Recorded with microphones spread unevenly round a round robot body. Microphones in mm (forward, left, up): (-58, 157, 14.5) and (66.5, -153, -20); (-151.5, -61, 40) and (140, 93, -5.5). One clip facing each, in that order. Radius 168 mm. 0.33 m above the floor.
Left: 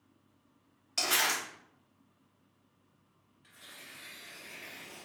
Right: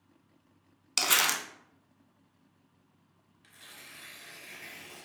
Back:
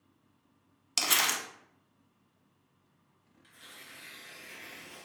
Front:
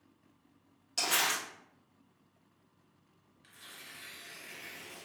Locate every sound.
1.0 s crumpling: 100° right, 0.6 m
3.4 s tearing paper: 35° right, 0.7 m